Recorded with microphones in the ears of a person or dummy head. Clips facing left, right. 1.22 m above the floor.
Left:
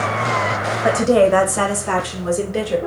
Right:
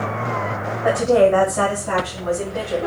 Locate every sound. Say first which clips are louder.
0.8 s a woman speaking: left 1 dB; 30° left (ahead or behind), 0.8 m; by 2.8 s 80° left, 1.5 m